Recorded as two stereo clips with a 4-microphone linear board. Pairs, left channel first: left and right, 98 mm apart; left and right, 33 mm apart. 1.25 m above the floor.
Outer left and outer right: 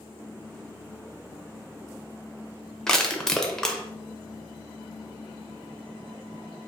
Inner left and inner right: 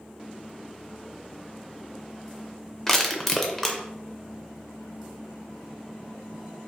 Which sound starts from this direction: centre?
Crushing, at 2.9 s.